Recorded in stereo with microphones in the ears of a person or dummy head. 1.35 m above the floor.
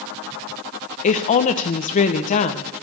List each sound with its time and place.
1.0 s a woman speaking: 35° left (ahead or behind), 1.3 m